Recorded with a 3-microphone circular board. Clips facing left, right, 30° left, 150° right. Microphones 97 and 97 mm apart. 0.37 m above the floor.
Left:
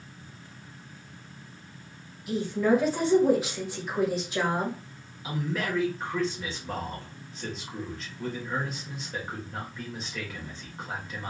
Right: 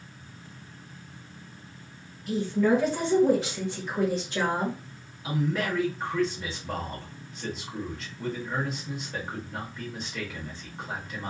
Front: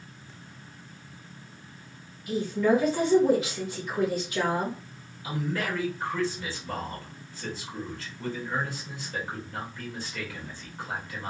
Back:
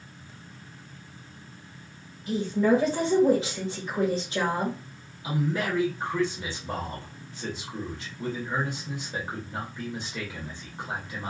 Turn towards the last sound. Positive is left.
turn(degrees=180)